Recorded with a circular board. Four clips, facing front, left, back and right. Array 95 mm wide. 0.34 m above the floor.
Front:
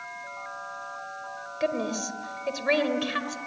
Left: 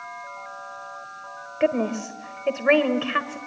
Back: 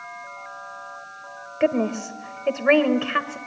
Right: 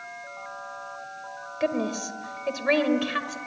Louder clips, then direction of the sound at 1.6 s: Left 4 dB, back 7 dB; 140° left.